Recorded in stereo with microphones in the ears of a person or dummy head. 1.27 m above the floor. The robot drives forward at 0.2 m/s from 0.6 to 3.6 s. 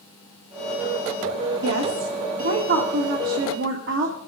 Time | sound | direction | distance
1.6 | a woman speaking | 80° right | 1.9 m